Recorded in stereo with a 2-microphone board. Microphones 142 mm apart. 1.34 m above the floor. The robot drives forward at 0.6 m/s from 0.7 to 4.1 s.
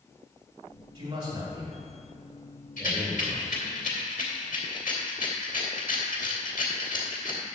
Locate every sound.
0.9 s a man speaking: 45° right (ahead or behind), 2.5 m; by 3.6 s 30° right (ahead or behind), 4 m
2.8 s a rattle: 70° left (ahead or behind), 3 m; by 7.5 s 75° left (ahead or behind), 2.5 m